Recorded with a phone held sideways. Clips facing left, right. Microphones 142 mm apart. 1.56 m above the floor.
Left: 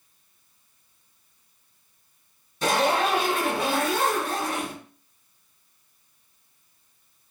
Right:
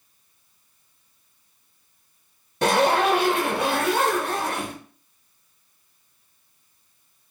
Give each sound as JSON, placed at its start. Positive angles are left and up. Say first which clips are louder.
{"t": 2.6, "sound": "a zipper", "louder": "right 3 dB", "side_deg": -65, "distance_m": 1.0}